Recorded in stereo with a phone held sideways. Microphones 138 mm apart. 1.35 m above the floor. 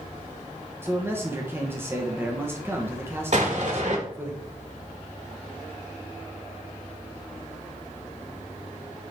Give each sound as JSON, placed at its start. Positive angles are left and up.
{"t": 0.8, "sound": "a man speaking", "side_deg": -15, "distance_m": 1.0}
{"t": 3.3, "sound": "an explosion", "side_deg": -60, "distance_m": 1.7}